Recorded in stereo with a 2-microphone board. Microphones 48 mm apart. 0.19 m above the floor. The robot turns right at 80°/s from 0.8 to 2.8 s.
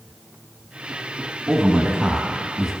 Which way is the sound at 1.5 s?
20° right (ahead or behind).